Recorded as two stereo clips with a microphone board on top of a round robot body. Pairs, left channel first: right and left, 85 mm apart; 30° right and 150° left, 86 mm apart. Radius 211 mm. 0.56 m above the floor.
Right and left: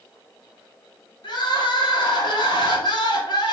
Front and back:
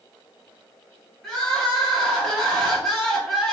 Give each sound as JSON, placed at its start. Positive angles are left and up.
{"t": 1.2, "sound": "crying", "azimuth_deg": -115, "distance_m": 1.6}